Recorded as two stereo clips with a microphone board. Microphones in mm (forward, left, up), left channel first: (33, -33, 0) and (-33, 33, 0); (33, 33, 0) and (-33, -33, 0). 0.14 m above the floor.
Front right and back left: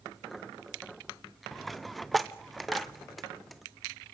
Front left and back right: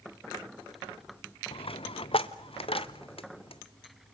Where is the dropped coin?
45° left, 0.8 m.